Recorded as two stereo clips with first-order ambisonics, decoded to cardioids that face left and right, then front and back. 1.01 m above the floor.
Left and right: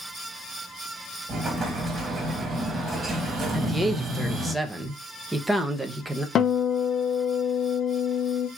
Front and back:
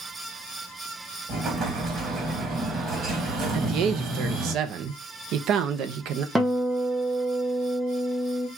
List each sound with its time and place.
1.3 s an explosion: 145° right, 1.0 m
3.5 s a man speaking: 170° right, 0.6 m
6.3 s a guitar: 115° left, 0.6 m